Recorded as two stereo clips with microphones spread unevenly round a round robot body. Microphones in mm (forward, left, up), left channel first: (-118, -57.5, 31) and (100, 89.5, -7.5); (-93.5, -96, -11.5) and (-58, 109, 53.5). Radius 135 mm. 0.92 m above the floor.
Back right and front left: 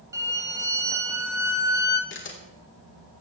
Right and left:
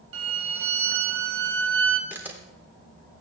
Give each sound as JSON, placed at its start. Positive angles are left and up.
{"t": 0.1, "sound": "a violin", "azimuth_deg": 110, "distance_m": 1.8}
{"t": 2.1, "sound": "a camera shutter", "azimuth_deg": 165, "distance_m": 3.0}